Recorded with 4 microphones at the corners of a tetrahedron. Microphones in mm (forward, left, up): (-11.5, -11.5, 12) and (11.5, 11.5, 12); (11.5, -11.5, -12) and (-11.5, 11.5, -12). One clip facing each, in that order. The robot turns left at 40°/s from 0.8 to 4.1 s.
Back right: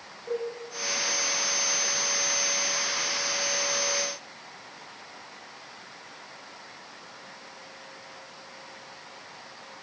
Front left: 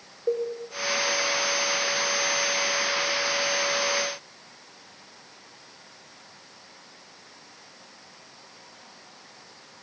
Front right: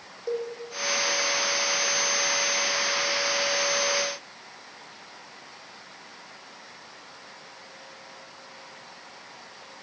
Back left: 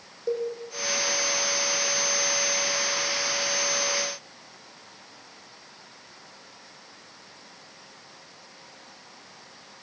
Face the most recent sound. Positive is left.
turn(degrees=-75)